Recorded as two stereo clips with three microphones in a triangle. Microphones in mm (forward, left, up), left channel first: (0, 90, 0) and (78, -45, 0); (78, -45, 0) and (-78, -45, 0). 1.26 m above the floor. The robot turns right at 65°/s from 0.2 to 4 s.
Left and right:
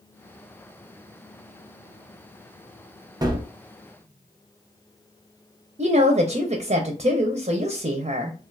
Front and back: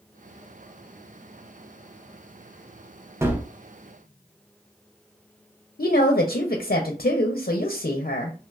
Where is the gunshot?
115° right, 0.5 m; by 3.5 s 95° right, 0.5 m.